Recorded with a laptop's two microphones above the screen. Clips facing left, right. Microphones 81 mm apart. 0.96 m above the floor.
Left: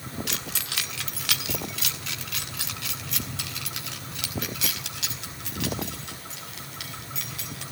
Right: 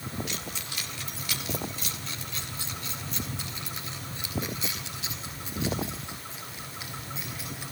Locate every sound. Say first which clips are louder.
0.3 s keys jangling: left 2 dB; 75° left (ahead or behind), 1.6 m